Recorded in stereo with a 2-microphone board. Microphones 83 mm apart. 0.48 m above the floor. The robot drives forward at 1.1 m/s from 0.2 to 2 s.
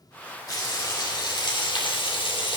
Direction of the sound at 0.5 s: 45° left (ahead or behind).